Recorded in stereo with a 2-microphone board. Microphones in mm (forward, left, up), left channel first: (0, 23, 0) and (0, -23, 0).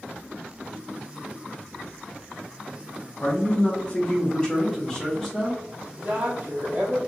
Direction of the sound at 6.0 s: 30° right (ahead or behind).